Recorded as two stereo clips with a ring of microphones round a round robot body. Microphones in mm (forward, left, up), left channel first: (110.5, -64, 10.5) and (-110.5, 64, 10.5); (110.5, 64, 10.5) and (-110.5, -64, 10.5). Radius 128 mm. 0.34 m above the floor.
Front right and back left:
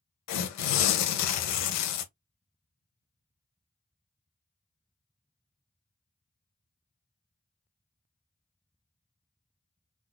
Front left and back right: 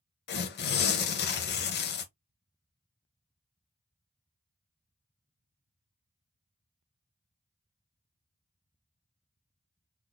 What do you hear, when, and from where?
0.3 s tearing paper: 20° right, 0.7 m